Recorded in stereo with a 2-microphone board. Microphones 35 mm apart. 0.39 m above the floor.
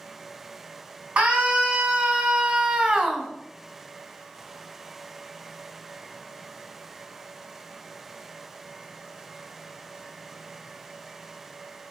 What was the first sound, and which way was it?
A scream, 40° right (ahead or behind).